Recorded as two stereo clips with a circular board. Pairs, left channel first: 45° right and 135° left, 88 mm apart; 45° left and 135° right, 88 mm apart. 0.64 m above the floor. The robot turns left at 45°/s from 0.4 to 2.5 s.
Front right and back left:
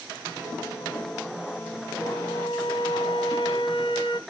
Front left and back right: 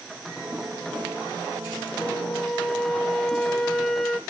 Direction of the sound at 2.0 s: 15° right.